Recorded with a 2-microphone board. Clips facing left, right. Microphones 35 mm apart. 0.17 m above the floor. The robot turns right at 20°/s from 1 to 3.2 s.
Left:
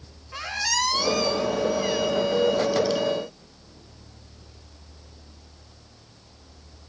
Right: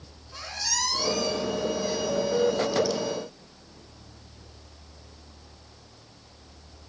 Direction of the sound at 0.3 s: 60° left (ahead or behind).